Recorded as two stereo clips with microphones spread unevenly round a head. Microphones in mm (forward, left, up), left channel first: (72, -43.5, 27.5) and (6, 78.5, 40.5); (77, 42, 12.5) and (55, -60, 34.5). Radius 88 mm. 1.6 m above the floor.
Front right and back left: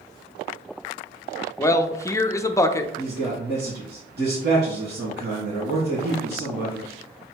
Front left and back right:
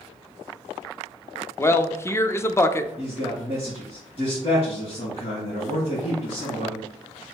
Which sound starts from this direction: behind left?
A man speaking, at 3.0 s.